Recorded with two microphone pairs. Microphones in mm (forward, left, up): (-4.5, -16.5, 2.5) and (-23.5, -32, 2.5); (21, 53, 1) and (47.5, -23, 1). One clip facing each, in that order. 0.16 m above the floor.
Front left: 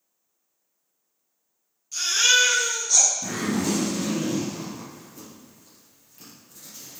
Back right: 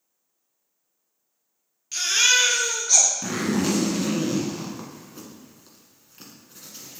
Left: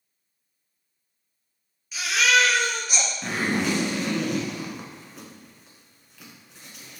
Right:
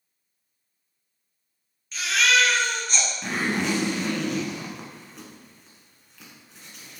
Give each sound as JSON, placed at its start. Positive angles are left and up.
{"t": 1.9, "sound": "a baby crying", "azimuth_deg": -170, "distance_m": 2.0}
{"t": 3.2, "sound": "a zipper", "azimuth_deg": -165, "distance_m": 1.7}